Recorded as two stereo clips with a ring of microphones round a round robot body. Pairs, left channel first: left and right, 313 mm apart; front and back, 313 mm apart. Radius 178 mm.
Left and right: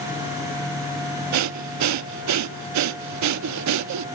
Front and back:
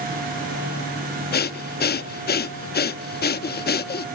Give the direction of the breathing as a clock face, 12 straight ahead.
2 o'clock.